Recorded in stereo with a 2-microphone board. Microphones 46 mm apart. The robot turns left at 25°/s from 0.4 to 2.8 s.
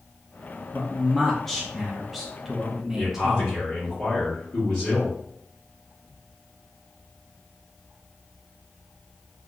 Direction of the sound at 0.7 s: 10° left (ahead or behind).